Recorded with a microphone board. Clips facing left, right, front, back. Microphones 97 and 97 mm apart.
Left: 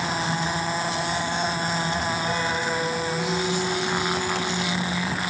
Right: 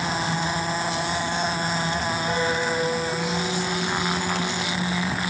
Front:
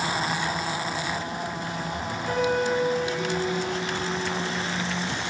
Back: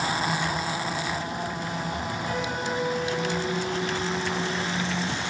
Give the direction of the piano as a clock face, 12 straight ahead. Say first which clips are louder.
Right 2 dB, front 8 dB; 12 o'clock.